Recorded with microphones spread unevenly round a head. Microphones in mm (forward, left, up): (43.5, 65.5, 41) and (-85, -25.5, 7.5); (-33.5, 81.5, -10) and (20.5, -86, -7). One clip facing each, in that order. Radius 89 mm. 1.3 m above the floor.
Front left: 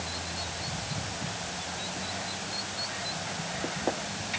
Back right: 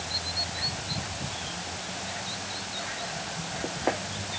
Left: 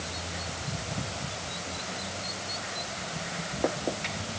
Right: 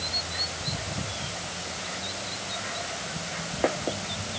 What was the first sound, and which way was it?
Only background noise.